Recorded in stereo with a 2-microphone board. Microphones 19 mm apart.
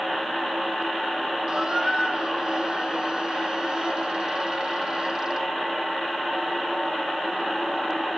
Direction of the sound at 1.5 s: 45° right (ahead or behind).